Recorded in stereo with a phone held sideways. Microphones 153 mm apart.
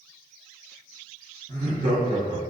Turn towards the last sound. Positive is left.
turn(degrees=-70)  # may be behind; listen again after turning